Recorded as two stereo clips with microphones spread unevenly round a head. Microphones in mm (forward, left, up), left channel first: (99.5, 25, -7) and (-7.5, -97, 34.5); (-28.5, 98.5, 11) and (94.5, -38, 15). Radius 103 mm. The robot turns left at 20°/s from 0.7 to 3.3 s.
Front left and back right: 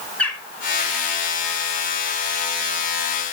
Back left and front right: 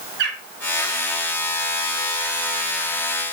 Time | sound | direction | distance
0.2 | a bird | 40° right | 3 m